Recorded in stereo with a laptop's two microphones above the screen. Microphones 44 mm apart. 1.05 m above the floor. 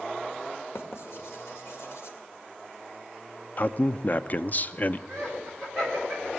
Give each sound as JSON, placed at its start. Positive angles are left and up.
{"t": 0.8, "sound": "writing", "side_deg": 80, "distance_m": 1.8}
{"t": 3.6, "sound": "a man speaking", "side_deg": 40, "distance_m": 0.6}
{"t": 5.1, "sound": "laughter", "side_deg": 10, "distance_m": 6.5}